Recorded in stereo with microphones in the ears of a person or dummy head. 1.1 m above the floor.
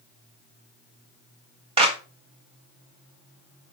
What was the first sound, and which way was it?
A clap, 35° right (ahead or behind).